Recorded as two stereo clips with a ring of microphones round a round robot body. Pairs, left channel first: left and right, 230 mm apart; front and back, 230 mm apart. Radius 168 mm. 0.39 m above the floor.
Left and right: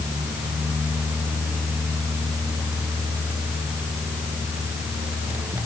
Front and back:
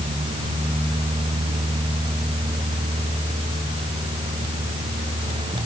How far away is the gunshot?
I don't hear a gunshot.